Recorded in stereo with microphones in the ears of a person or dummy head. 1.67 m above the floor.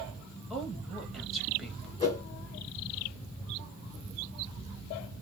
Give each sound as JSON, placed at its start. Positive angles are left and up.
{"t": 0.5, "sound": "a woman speaking", "side_deg": 5, "distance_m": 1.5}
{"t": 2.0, "sound": "a whoosh", "side_deg": 35, "distance_m": 1.5}